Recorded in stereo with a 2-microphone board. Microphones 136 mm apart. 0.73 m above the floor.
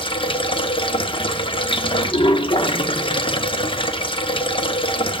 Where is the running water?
40° left (ahead or behind), 0.8 m.